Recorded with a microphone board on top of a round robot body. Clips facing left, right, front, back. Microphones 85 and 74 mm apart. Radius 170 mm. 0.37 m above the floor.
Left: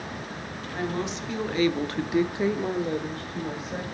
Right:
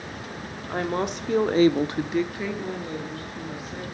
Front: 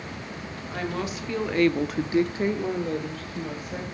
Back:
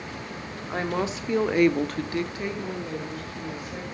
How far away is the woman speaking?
About 2 m.